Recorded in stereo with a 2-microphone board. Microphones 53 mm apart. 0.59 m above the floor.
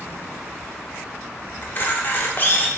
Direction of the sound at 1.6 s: 40° left (ahead or behind).